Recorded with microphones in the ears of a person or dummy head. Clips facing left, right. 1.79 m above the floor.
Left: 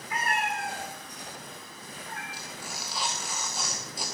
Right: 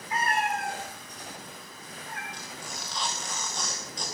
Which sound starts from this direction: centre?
Tearing paper, at 2.3 s.